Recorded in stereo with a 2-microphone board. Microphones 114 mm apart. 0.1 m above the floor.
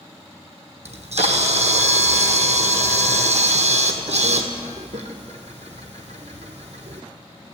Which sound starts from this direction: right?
A camera shutter, at 0.8 s.